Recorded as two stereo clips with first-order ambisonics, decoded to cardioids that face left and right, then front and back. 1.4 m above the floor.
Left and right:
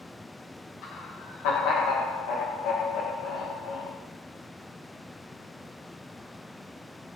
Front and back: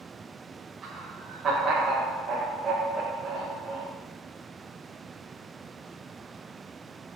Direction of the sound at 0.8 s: 115° left.